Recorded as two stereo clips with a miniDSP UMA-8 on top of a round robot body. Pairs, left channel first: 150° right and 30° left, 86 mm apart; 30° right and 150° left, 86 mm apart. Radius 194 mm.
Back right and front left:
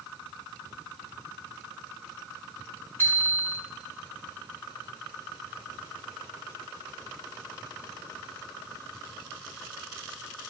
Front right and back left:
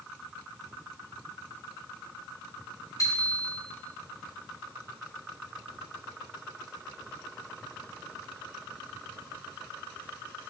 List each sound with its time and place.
3.0 s a bicycle bell: 85° right, 9 m